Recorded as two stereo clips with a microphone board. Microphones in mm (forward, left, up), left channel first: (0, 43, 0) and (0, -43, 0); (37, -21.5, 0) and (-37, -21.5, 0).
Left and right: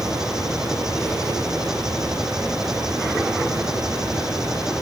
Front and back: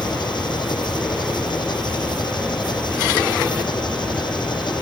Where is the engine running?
5° right.